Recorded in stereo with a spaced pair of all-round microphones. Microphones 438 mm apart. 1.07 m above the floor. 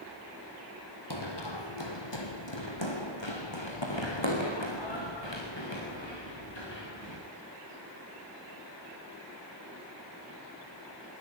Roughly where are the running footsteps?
Left.